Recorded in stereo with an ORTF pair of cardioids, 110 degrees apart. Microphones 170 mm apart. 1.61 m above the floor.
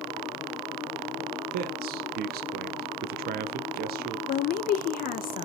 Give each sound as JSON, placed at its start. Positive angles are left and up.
{"t": 1.5, "sound": "a man speaking", "azimuth_deg": -65, "distance_m": 0.5}
{"t": 4.3, "sound": "a woman speaking", "azimuth_deg": 60, "distance_m": 0.6}